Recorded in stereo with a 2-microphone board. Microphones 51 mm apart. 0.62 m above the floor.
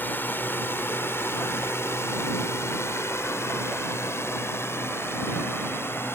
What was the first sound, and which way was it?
A drone, 40° left (ahead or behind).